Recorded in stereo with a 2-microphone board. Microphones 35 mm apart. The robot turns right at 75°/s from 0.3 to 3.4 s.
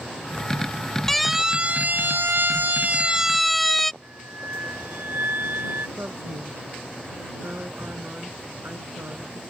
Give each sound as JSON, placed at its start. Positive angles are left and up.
{"t": 1.1, "sound": "a siren", "side_deg": 10}
{"t": 4.0, "sound": "a flute", "side_deg": -70}
{"t": 6.0, "sound": "a woman speaking", "side_deg": -75}